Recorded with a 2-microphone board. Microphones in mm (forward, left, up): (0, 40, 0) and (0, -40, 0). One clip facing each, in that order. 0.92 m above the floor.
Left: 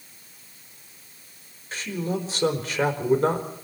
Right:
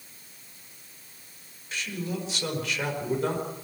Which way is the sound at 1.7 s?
35° left (ahead or behind).